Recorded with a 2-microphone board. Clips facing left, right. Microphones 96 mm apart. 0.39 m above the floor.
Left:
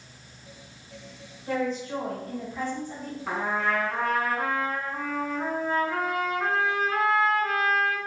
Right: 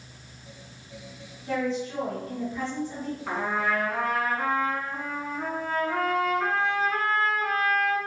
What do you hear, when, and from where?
1.5 s a woman speaking: 40° left (ahead or behind), 1.6 m; by 3.2 s 50° left (ahead or behind), 2.0 m
3.3 s a trumpet: 10° left (ahead or behind), 1.9 m